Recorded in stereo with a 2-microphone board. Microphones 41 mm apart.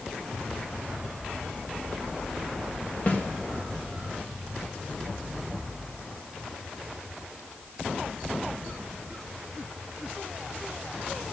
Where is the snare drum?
45° left (ahead or behind), 2 m.